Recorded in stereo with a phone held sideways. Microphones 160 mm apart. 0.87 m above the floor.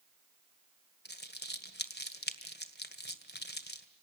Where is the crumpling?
85° left, 1.8 m.